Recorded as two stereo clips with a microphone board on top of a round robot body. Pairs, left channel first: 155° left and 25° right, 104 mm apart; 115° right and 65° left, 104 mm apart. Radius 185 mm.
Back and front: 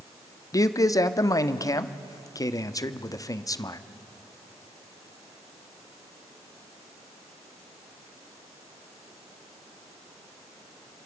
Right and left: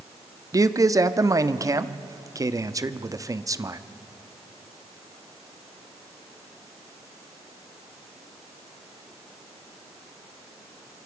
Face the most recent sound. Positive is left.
turn(degrees=115)